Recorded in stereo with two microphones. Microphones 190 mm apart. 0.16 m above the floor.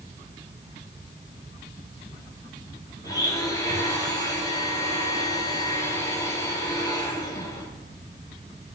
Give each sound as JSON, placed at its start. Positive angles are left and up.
{"t": 3.0, "sound": "a blender", "side_deg": 20, "distance_m": 3.5}